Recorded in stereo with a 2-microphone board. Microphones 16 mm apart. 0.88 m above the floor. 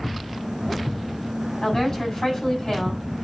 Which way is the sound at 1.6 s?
40° left (ahead or behind).